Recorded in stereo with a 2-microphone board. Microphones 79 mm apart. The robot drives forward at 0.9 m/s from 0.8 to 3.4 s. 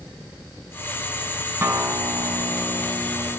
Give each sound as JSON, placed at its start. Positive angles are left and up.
{"t": 1.6, "sound": "a guitar", "side_deg": -30, "distance_m": 4.0}